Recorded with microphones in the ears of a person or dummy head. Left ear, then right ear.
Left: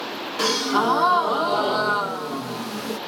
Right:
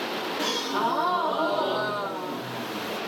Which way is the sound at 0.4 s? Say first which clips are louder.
Left 7 dB; 70° left (ahead or behind).